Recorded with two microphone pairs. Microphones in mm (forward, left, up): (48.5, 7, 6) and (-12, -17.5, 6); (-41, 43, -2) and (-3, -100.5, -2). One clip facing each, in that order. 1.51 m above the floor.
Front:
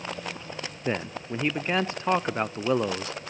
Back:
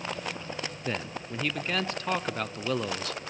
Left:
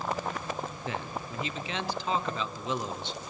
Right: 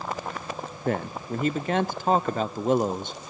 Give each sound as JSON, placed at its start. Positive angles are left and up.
{"t": 0.8, "sound": "a man speaking", "azimuth_deg": -45, "distance_m": 0.7}